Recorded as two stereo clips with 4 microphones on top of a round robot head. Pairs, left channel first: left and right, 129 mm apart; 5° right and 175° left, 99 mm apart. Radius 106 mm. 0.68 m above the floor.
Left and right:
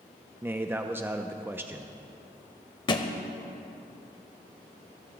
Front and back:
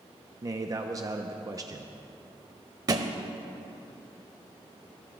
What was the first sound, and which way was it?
A man speaking, 155° right.